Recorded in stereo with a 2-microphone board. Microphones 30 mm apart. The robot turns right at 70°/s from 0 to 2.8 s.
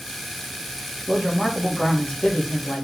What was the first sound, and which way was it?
A man speaking, 45° right.